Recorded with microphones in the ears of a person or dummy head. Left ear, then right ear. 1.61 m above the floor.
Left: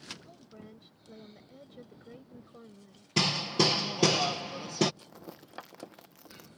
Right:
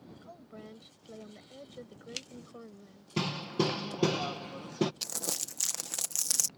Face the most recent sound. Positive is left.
turn(degrees=-85)